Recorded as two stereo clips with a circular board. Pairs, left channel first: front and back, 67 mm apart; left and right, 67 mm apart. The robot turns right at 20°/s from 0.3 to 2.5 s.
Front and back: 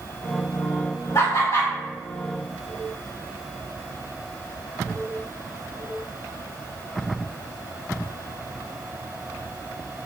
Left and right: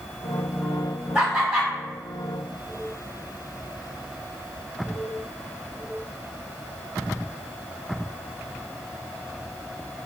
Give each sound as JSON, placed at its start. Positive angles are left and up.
{"t": 1.1, "sound": "laughter", "azimuth_deg": -30, "distance_m": 1.0}